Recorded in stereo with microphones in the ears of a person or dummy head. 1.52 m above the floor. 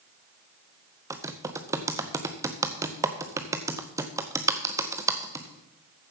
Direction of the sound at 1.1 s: 15° right (ahead or behind).